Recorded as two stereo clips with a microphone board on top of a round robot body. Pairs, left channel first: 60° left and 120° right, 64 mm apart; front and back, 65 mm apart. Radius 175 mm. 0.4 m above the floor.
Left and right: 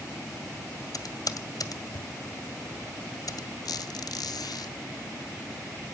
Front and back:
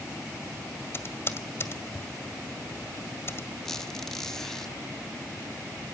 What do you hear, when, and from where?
0.9 s typing on a keyboard: 45° left, 1.5 m
3.6 s a squeak: 80° left, 0.7 m